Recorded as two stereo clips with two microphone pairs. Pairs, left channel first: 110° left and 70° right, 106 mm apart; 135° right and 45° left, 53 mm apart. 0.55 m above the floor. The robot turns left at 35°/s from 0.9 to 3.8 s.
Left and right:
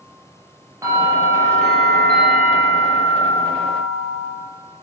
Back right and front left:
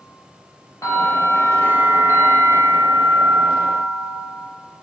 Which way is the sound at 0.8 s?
130° right.